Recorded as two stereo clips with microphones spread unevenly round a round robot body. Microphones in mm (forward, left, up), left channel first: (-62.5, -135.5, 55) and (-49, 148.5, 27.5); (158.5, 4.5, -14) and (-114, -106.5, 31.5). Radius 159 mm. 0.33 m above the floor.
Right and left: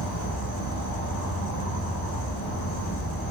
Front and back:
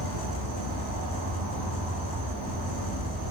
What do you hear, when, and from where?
0.0 s an insect: 140° right, 0.8 m